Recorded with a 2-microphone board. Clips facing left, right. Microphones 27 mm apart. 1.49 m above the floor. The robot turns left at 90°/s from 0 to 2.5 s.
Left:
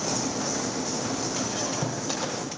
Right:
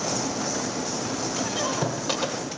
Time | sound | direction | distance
1.4 | a squeak | 20° right | 3.5 m